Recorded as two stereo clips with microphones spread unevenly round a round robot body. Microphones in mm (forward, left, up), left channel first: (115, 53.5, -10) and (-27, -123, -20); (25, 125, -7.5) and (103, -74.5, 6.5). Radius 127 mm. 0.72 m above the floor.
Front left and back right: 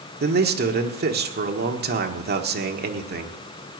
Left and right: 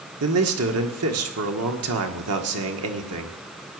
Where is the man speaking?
85° right, 1.6 m.